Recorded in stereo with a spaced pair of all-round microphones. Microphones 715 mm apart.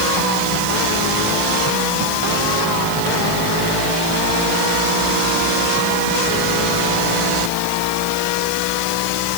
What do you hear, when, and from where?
Only background noise.